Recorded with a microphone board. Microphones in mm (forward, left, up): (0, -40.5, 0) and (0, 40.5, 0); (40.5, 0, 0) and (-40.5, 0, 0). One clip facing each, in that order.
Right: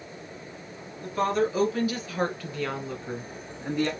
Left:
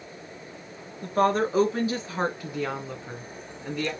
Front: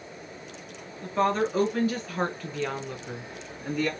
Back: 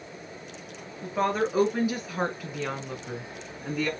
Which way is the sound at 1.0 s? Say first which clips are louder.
Left 2 dB, front 1 dB; 105° left.